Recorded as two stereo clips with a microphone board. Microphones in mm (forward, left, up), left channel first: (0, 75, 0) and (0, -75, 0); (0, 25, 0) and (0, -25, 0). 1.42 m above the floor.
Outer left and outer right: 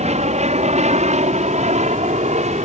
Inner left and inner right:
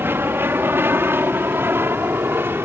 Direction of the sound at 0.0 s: 50° right (ahead or behind).